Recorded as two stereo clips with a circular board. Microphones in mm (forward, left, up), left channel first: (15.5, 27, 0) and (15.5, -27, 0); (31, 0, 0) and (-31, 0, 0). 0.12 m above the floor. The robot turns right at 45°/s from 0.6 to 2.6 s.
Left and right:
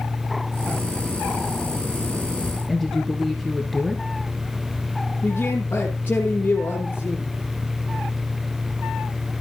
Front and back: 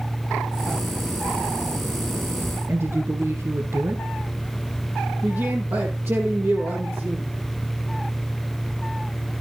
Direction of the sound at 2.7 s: 175° left.